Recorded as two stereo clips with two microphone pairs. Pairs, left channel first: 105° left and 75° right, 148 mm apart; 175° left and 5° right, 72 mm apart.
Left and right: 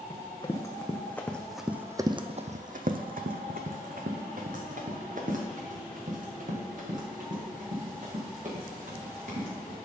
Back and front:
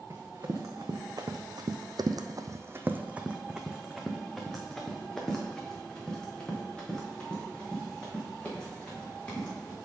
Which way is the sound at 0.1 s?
40° left.